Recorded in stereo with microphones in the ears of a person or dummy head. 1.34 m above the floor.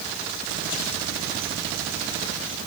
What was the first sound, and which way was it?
Only background noise.